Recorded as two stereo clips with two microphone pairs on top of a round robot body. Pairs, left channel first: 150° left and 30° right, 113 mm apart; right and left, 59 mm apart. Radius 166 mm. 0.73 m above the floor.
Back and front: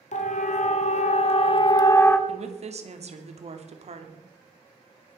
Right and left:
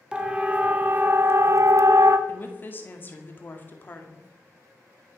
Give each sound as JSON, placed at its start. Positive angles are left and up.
{"t": 0.1, "sound": "a siren", "azimuth_deg": 160, "distance_m": 2.0}
{"t": 2.3, "sound": "a woman speaking", "azimuth_deg": -35, "distance_m": 2.5}